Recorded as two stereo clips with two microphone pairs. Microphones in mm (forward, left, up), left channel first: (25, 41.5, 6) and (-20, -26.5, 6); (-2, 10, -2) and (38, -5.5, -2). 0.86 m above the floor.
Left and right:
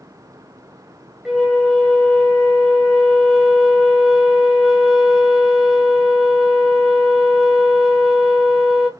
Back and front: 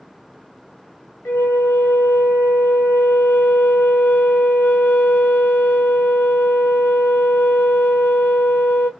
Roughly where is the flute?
Behind left.